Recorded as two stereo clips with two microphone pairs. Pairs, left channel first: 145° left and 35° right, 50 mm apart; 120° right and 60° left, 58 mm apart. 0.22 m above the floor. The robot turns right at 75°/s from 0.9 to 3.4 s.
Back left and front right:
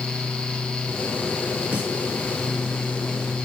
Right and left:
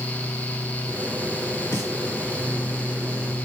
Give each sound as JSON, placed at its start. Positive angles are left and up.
{"t": 1.7, "sound": "a snare drum", "azimuth_deg": -95, "distance_m": 3.0}